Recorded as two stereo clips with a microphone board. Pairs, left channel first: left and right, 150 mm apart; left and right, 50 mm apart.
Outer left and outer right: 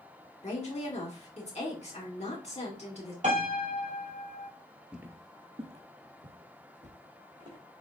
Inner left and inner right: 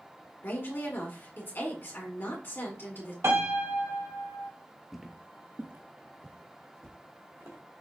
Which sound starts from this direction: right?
A piano, at 3.2 s.